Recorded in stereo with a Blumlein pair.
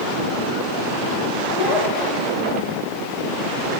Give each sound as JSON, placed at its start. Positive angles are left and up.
{"t": 1.5, "sound": "a child speaking", "azimuth_deg": 35, "distance_m": 4.0}